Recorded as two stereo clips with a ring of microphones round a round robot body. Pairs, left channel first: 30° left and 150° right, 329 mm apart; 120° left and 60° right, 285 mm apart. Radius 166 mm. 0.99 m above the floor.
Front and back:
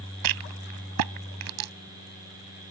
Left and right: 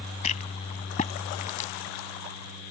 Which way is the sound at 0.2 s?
170° right.